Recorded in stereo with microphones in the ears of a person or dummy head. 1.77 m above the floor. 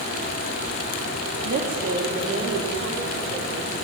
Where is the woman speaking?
55° right (ahead or behind), 4 m; by 3.7 s 45° right (ahead or behind), 6.5 m.